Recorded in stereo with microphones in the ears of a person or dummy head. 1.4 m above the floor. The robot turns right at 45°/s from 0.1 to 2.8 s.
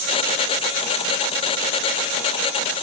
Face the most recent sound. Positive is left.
No sound to turn to.